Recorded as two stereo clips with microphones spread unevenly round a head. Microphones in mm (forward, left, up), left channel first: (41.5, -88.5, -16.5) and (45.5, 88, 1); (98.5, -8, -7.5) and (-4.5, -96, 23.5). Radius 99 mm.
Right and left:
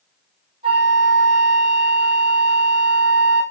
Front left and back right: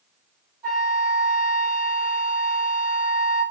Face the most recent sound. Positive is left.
turn(degrees=155)